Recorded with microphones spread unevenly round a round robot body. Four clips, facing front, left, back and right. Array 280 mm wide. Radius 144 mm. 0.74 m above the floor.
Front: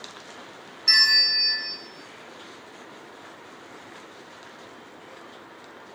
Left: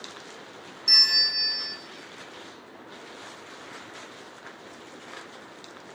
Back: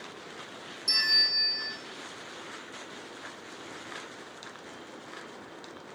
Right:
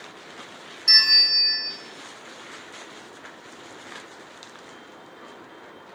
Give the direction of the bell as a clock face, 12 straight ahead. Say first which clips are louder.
Right 5 dB, front 8 dB; 1 o'clock.